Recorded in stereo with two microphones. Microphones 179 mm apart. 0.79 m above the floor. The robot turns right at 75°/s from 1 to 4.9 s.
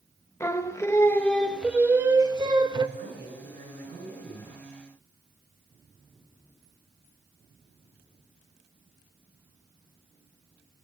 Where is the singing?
15° left (ahead or behind), 0.7 m; by 2.9 s 25° right (ahead or behind), 0.7 m.